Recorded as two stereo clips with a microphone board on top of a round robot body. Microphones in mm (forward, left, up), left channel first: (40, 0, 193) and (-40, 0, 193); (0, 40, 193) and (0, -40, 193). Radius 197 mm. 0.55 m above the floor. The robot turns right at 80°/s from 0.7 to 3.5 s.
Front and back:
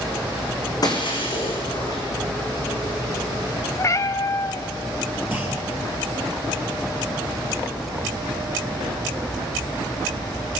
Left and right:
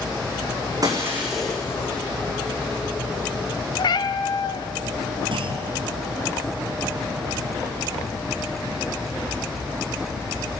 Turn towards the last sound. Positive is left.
turn(degrees=-110)